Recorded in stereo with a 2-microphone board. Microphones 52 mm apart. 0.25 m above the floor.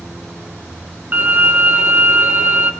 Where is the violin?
35° right (ahead or behind), 1.8 m.